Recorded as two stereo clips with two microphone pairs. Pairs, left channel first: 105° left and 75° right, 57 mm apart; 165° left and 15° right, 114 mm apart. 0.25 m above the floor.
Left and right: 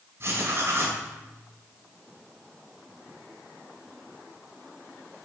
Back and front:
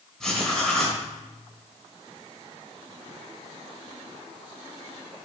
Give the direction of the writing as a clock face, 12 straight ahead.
4 o'clock.